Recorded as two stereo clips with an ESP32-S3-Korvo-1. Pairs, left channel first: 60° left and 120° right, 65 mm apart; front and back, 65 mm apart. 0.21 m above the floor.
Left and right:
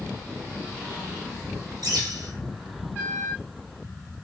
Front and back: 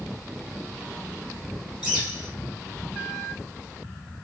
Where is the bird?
110° right, 1.6 m.